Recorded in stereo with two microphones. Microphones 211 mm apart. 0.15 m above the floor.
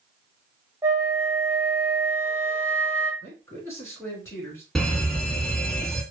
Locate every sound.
0.8 s a flute: 15° right (ahead or behind), 1.0 m
3.2 s a man speaking: 15° left (ahead or behind), 1.8 m
4.8 s an alarm: centre (ahead or behind), 1.1 m